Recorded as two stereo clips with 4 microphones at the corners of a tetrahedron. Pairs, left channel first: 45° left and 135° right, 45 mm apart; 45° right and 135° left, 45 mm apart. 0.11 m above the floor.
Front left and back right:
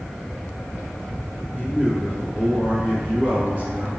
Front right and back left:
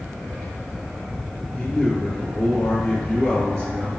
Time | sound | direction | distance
1.5 | a man speaking | 100° right | 1.4 m